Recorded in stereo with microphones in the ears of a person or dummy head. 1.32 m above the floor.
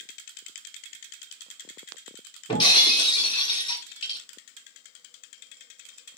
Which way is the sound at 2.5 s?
30° left (ahead or behind).